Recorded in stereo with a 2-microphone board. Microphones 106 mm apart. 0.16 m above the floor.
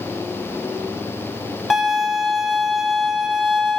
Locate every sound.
1.7 s a violin: centre (ahead or behind), 1.0 m